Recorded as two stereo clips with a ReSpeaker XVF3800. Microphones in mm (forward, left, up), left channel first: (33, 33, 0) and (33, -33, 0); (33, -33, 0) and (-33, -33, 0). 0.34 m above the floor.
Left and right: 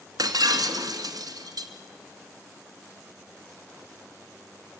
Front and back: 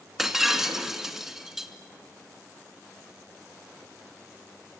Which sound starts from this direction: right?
Breaking glass, at 0.2 s.